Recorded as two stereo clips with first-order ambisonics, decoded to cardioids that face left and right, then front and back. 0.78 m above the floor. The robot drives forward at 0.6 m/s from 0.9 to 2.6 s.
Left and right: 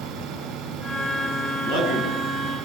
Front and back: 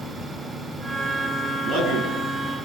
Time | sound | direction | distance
1.6 | a man speaking | 115° left | 9.5 m